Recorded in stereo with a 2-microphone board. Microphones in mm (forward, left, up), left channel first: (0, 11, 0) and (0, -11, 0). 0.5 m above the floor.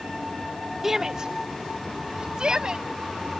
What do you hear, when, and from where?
0.8 s a shout: 20° right (ahead or behind); by 2.9 s 40° right (ahead or behind)